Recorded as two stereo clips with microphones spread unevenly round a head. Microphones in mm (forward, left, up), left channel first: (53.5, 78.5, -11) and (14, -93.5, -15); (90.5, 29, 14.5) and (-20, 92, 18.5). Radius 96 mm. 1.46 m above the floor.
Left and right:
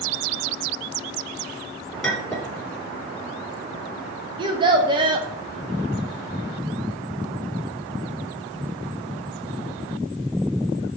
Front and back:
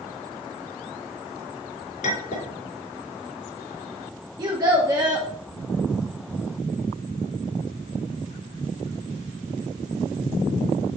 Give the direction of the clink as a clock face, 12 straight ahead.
12 o'clock.